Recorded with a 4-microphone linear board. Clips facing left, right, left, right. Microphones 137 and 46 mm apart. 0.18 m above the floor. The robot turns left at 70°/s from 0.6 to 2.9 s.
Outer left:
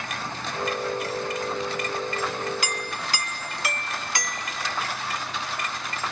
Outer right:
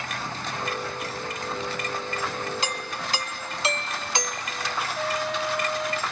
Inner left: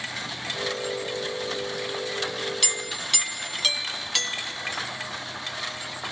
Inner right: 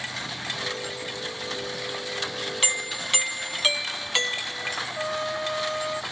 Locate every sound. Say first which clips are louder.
2.6 s a doorbell: even, inner right 2 dB; 25° right (ahead or behind)
5.0 s a trumpet: outer right 5 dB, inner right 6 dB; 70° right (ahead or behind)